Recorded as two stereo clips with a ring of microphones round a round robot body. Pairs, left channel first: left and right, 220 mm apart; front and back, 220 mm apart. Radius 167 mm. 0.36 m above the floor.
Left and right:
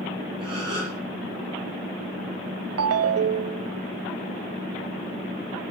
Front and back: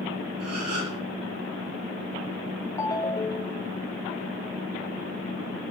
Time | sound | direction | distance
0.4 | a gasp | 165° right | 8.5 m
2.8 | a ringtone | 80° right | 0.7 m